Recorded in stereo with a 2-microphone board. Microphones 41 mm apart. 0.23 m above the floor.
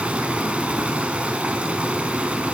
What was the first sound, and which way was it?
Running water, 30° right (ahead or behind).